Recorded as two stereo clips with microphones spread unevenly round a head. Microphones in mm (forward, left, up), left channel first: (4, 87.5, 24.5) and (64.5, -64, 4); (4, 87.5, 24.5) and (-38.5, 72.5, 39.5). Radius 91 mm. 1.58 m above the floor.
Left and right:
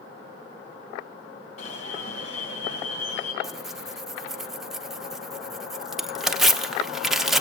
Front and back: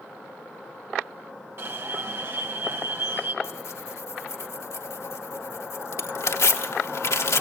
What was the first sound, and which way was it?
An alarm, 170° left.